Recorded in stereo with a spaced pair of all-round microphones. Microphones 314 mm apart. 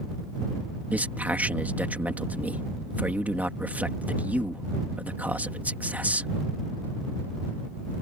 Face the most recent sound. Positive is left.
turn(degrees=-5)  # may be behind; listen again after turning